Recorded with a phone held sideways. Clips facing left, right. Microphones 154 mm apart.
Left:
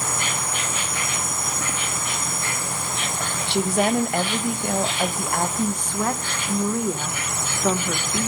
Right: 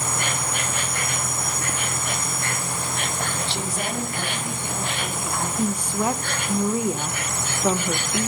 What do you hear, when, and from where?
0.0 s an insect: 55° right (ahead or behind), 2.5 m
3.5 s a woman speaking: 60° left (ahead or behind), 1.1 m
5.6 s a woman speaking: 10° right (ahead or behind), 0.8 m